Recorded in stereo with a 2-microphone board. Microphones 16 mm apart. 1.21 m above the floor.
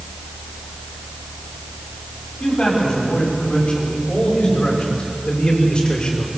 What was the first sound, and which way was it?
A man speaking, 80° left.